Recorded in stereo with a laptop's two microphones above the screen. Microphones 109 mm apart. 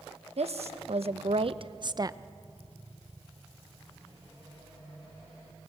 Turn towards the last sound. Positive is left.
turn(degrees=-30)  # may be behind; listen again after turning